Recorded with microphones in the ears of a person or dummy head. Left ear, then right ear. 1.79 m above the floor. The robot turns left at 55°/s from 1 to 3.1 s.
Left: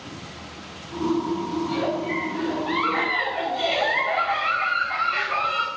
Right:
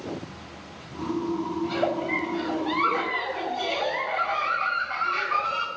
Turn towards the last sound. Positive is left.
turn(degrees=160)